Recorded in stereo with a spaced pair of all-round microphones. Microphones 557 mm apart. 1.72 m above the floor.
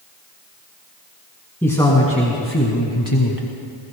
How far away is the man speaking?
About 2 m.